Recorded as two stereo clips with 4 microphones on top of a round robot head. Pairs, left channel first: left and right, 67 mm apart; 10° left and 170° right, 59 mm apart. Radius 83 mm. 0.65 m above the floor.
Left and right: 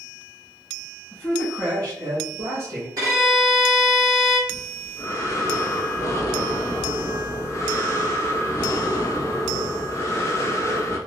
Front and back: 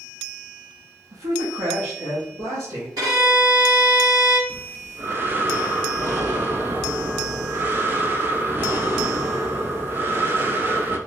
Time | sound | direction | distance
1.1 | a man speaking | 175° right | 0.9 m
3.0 | a violin | 135° right | 1.4 m
4.5 | breathing | 135° left | 0.7 m